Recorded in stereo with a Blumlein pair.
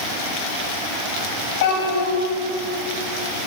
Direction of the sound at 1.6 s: 65° left.